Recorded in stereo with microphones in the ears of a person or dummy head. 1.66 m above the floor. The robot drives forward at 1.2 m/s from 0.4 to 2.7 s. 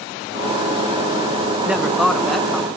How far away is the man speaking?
About 0.6 m.